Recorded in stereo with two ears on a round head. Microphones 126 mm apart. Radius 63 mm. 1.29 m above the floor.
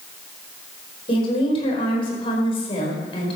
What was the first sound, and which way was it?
A woman speaking, 40° left (ahead or behind).